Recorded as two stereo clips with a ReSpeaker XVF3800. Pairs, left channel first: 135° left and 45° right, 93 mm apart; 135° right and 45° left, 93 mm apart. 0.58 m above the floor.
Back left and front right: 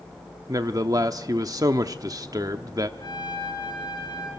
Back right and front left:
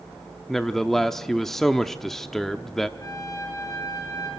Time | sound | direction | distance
0.5 | a man speaking | 50° right | 0.8 m
3.0 | a trumpet | 170° left | 8.5 m